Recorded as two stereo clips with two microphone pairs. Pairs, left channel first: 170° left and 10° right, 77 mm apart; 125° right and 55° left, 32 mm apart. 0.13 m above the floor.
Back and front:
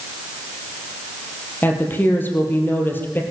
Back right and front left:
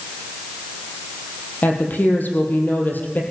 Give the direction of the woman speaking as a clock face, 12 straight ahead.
4 o'clock.